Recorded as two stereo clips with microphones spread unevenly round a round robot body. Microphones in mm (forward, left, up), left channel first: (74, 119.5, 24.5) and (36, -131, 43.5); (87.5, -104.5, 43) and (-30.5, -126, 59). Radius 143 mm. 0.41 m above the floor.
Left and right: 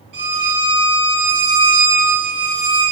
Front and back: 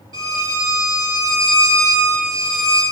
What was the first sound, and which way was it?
A violin, 115° right.